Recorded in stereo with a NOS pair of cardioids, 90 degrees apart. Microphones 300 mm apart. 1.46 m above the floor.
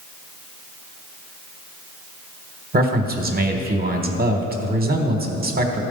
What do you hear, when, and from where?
2.7 s a man speaking: 30° right, 1.4 m